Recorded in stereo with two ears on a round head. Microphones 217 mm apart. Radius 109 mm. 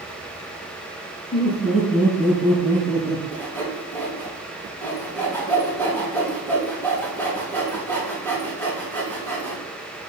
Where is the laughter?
30° left (ahead or behind), 4.5 m; by 3.2 s 10° left (ahead or behind), 3 m.